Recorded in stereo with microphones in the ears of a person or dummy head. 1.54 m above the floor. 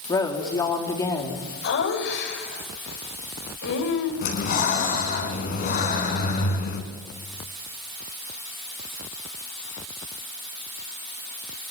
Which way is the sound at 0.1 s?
15° left (ahead or behind).